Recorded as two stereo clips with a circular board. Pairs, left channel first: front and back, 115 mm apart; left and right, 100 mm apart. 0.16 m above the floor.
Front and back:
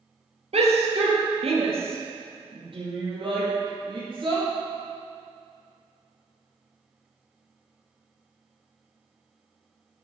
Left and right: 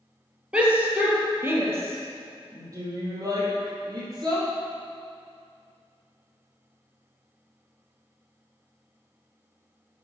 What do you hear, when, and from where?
0.5 s a shout: 170° right, 3.5 m; by 4.5 s 135° right, 6 m